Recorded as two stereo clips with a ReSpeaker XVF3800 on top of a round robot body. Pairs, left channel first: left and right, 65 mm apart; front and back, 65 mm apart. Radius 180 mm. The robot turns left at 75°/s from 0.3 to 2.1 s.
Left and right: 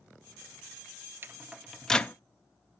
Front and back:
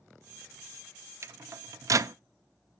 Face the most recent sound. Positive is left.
turn(degrees=155)